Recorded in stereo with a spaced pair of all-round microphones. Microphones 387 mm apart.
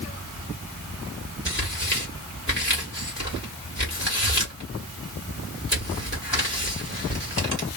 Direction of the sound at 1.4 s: 30° left (ahead or behind).